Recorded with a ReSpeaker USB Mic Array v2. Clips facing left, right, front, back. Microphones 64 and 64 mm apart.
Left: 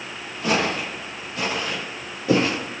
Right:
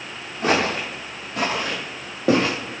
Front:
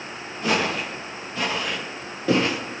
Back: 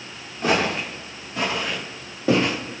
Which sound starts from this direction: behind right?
Footsteps, at 0.4 s.